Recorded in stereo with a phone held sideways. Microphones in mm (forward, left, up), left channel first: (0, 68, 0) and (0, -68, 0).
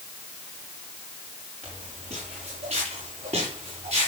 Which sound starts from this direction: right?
Footsteps, at 1.6 s.